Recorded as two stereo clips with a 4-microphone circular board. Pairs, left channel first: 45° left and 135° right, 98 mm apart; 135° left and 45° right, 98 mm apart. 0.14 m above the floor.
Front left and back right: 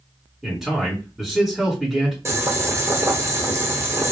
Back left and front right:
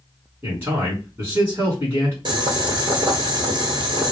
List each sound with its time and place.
0.4 s a man speaking: 50° right, 1.5 m
2.2 s boiling: 75° right, 1.0 m